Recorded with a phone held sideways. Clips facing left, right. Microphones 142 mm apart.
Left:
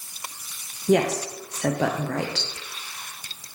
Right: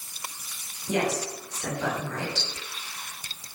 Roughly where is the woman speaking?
Left.